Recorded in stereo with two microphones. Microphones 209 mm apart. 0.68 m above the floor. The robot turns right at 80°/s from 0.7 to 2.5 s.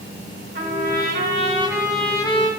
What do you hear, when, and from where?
0.6 s a trumpet: 100° right, 0.9 m; by 2.5 s 40° left, 0.9 m